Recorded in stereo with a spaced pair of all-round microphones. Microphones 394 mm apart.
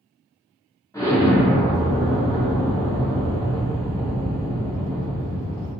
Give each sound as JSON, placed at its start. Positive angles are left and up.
{"t": 0.9, "sound": "an explosion", "side_deg": 10, "distance_m": 0.9}